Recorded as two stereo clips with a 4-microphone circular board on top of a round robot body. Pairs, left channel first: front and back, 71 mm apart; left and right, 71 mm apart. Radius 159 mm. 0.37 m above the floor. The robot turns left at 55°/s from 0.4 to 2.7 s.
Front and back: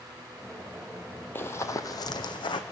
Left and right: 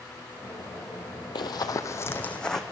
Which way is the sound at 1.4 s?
60° left.